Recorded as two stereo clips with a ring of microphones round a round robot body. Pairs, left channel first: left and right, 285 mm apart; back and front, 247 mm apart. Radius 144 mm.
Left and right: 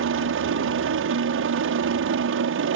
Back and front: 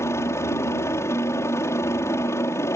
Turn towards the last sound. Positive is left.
turn(degrees=-105)